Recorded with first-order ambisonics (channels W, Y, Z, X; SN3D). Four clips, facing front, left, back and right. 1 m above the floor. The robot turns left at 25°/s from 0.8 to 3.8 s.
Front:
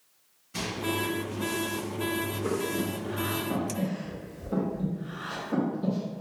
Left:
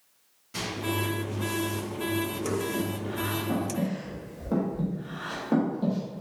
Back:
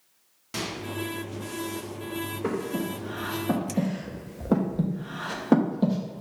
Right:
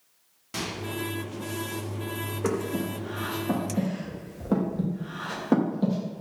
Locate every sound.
0.5 s a microwave: 145° right, 1.9 m
2.4 s breathing: 125° right, 0.9 m; by 6.2 s 160° right, 0.9 m